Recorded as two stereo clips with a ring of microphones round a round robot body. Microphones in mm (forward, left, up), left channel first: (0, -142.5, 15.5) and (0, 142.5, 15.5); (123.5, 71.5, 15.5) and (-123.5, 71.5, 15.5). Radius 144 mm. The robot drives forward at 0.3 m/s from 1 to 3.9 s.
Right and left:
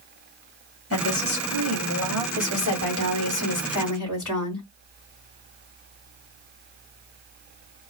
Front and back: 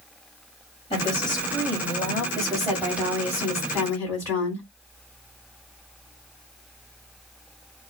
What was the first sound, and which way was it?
A woman speaking, 65° right.